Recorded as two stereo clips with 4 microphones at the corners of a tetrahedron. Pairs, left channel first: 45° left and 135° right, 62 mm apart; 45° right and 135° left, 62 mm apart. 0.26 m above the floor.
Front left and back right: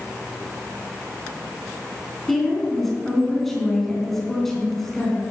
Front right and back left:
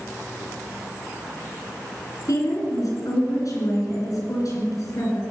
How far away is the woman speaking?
About 3.5 m.